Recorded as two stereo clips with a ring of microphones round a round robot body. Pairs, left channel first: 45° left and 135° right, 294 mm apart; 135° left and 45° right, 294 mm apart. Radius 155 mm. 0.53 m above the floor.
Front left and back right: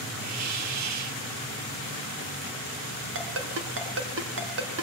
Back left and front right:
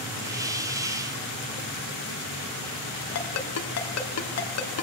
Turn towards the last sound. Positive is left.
turn(degrees=175)